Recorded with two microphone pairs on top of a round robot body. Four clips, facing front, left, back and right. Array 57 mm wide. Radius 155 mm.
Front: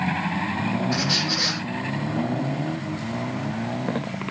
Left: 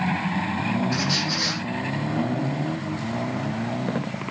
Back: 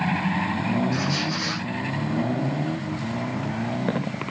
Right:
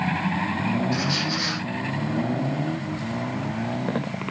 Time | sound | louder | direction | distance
0.9 | a squeak | even, even | 10° left | 10 m